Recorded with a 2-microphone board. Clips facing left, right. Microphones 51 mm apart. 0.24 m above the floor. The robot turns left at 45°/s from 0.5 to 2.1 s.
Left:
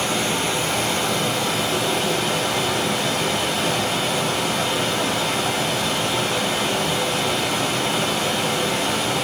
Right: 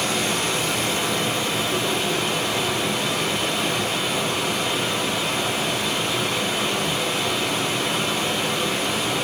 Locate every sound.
0.0 s running water: 140° left, 1.1 m; by 9.2 s 70° left, 1.1 m